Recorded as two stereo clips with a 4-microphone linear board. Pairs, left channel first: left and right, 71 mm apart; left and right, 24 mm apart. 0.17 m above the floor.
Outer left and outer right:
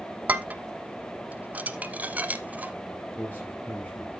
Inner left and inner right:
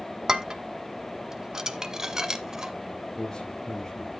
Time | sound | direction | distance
0.3 | dishes clattering | 20° right (ahead or behind) | 0.8 m
3.1 | a man speaking | 25° left (ahead or behind) | 3.5 m